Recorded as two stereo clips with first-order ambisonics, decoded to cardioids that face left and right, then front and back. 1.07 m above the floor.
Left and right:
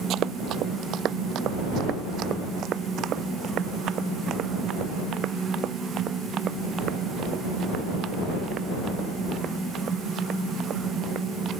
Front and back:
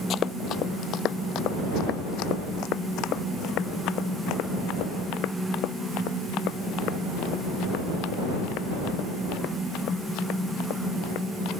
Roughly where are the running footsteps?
Ahead right.